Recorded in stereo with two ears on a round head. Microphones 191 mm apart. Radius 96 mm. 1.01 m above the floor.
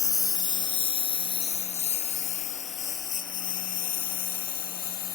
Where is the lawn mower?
15° left (ahead or behind); by 5.2 s 45° left (ahead or behind).